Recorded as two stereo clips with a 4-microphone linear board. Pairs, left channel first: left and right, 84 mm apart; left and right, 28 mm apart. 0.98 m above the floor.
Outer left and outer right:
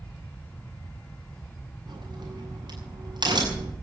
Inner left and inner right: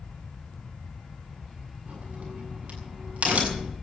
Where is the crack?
65° right (ahead or behind), 7.5 m.